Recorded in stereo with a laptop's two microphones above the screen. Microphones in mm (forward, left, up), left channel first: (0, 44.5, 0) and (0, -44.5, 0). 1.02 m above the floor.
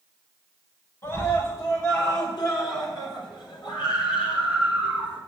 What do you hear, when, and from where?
1.0 s a scream: 40° left (ahead or behind), 6 m; by 5.2 s 80° left, 5.5 m